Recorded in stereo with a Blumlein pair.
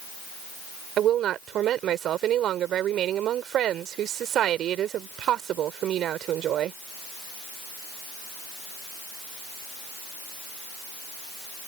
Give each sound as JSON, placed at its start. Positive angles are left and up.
{"t": 1.0, "sound": "a woman speaking", "azimuth_deg": -30}